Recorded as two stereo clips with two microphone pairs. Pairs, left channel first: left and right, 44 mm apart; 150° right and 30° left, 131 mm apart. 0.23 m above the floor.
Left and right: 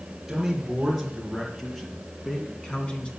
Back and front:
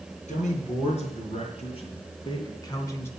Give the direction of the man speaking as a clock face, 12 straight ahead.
6 o'clock.